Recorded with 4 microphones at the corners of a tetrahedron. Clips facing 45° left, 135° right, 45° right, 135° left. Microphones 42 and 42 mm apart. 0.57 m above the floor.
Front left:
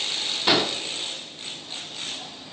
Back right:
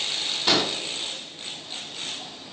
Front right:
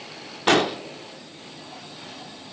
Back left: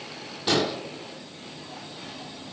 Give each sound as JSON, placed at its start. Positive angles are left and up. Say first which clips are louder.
{"t": 0.5, "sound": "an explosion", "louder": "front left 2 dB, front right 5 dB", "azimuth_deg": -30, "distance_m": 1.2}